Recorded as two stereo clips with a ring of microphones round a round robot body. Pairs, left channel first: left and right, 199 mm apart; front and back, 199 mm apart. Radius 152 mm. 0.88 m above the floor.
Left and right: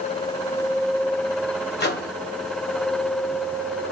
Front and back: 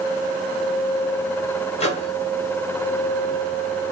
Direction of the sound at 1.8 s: 60° left.